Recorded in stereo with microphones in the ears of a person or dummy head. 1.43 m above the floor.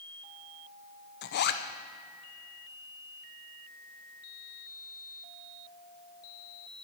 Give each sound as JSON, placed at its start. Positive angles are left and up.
{"t": 1.2, "sound": "a zipper", "side_deg": 55, "distance_m": 0.6}